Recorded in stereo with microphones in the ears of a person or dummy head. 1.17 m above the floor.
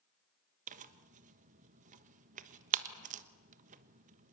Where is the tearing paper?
45° right (ahead or behind), 1.2 m.